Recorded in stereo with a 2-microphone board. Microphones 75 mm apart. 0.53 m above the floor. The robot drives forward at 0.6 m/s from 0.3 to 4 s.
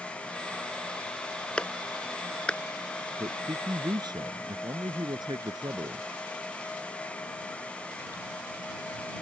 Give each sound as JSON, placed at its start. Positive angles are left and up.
{"t": 1.6, "sound": "a clap", "side_deg": 15}
{"t": 3.2, "sound": "a man speaking", "side_deg": -65}